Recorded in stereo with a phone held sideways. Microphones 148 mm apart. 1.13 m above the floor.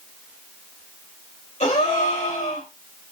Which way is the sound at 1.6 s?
50° left (ahead or behind).